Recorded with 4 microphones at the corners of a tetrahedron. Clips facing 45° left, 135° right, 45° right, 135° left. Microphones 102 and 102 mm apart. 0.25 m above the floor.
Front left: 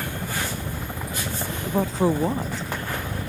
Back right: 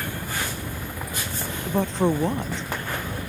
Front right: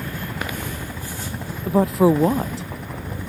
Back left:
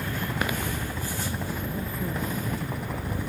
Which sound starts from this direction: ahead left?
A helicopter, at 0.0 s.